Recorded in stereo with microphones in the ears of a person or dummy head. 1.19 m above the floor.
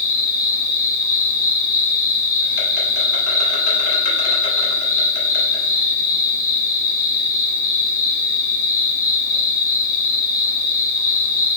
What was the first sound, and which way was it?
An insect, 75° left (ahead or behind).